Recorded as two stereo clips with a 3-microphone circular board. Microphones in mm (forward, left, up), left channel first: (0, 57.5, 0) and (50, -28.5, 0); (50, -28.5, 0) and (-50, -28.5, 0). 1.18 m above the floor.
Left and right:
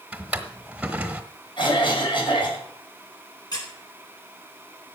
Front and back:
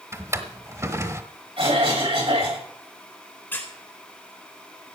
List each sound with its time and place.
0.1 s a drawer: 130° right, 1.3 m
1.6 s a cough: 155° left, 6.5 m
3.5 s a squeak: 70° left, 4 m